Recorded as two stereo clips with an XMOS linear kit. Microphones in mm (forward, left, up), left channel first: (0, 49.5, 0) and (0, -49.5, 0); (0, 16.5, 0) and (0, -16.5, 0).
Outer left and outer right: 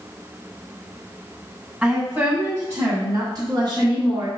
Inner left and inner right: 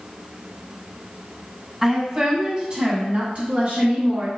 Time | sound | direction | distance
1.8 | a woman speaking | 10° right (ahead or behind) | 1.7 m